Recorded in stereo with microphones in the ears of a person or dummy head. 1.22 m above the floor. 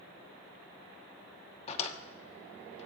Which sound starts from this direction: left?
A drawer, at 1.7 s.